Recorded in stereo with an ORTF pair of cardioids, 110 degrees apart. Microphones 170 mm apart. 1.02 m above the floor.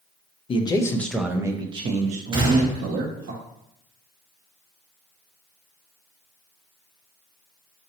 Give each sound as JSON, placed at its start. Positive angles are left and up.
{"t": 0.5, "sound": "a man speaking", "azimuth_deg": 30, "distance_m": 0.7}
{"t": 2.3, "sound": "a gunshot", "azimuth_deg": -30, "distance_m": 1.2}